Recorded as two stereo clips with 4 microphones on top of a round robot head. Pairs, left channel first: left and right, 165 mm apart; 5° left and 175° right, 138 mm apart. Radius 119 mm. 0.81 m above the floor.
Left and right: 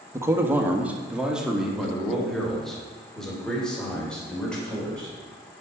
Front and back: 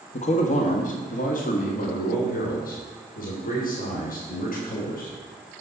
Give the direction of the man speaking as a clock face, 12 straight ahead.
1 o'clock.